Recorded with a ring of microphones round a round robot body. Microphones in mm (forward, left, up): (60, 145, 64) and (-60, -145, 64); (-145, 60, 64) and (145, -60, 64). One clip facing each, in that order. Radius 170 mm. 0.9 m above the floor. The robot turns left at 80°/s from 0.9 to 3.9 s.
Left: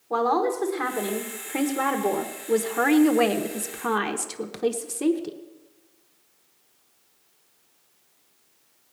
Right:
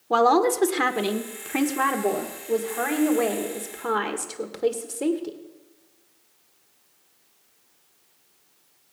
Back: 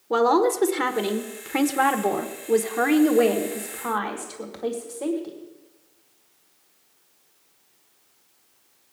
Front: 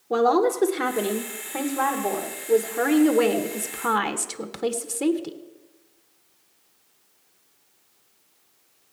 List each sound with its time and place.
0.1 s a woman speaking: 120° right, 1.2 m; by 5.4 s straight ahead, 1.2 m